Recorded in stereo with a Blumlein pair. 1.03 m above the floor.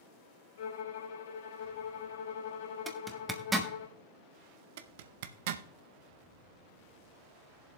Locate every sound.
0.6 s a violin: 60° left, 2.5 m
2.9 s a zipper: 10° right, 1.1 m
4.8 s a zipper: 50° right, 0.6 m